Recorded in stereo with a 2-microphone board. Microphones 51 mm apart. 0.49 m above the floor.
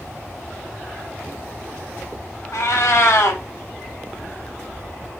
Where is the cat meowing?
70° left (ahead or behind), 0.8 m.